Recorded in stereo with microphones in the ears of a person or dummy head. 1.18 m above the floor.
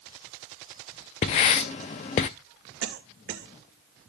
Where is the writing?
25° left (ahead or behind), 0.6 m.